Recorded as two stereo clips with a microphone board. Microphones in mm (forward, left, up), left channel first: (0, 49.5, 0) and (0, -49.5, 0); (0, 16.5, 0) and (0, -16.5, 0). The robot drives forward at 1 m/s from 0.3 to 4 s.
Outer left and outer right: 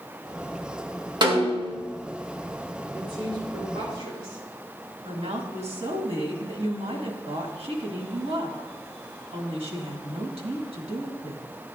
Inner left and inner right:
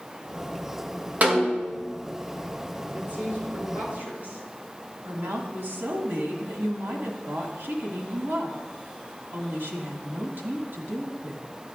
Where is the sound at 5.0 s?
70° right (ahead or behind), 1.8 m.